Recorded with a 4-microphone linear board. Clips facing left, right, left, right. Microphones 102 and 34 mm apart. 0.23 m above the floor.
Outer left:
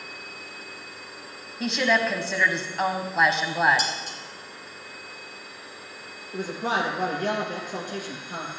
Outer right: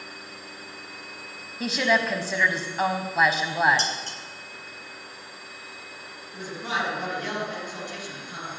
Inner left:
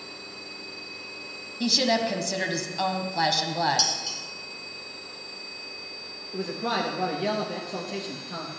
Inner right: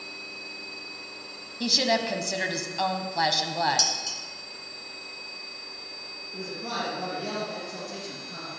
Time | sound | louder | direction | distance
1.6 | a woman speaking | even, inner left 1 dB | centre (ahead or behind) | 1.2 m
3.8 | dishes clattering | outer left 1 dB, inner left 1 dB | 10° left (ahead or behind) | 2 m
6.3 | a man speaking | outer left 4 dB, inner left 5 dB | 50° left (ahead or behind) | 3.5 m